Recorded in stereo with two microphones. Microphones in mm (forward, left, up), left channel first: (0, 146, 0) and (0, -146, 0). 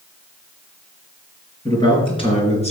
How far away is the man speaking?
About 4 m.